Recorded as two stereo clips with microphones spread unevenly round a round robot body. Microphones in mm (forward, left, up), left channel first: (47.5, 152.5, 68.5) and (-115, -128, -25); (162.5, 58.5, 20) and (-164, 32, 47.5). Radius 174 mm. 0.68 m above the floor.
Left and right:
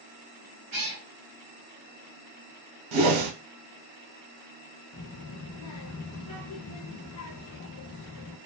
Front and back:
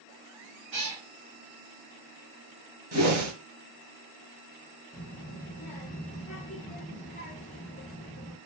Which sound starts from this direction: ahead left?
A child speaking, at 4.9 s.